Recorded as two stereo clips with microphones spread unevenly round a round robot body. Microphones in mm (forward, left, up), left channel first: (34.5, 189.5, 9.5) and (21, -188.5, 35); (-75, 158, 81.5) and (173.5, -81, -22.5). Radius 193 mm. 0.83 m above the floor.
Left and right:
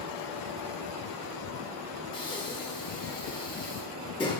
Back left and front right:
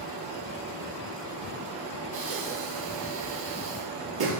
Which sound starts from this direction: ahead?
Breathing, at 2.1 s.